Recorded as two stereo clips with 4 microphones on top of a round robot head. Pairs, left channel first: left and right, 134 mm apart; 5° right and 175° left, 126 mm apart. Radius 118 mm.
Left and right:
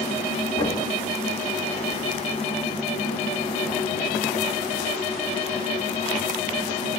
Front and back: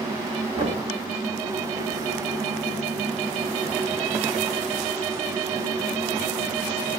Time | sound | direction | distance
0.5 | knocking | 145° left | 2.5 m